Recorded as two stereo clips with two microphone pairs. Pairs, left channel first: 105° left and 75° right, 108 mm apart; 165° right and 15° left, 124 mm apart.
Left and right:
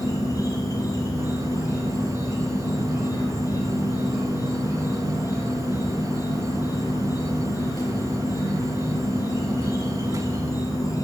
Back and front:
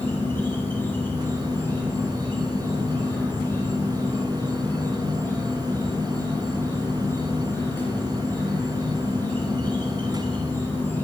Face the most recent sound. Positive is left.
turn(degrees=130)